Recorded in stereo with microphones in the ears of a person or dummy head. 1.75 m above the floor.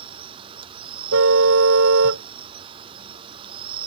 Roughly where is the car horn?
Right.